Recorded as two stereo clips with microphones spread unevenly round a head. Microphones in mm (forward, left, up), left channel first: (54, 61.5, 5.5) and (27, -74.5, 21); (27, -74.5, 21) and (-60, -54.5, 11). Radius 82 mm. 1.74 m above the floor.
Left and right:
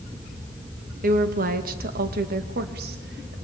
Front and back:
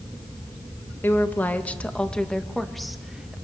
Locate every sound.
1.0 s a woman speaking: 80° right, 2.5 m; by 3.4 s 105° right, 2.5 m